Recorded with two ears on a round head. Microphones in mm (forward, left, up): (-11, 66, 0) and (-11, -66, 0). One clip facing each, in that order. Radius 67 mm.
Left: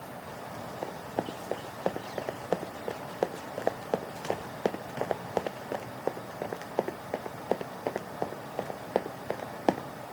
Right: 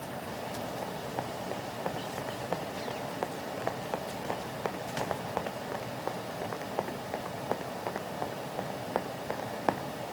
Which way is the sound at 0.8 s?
45° left (ahead or behind).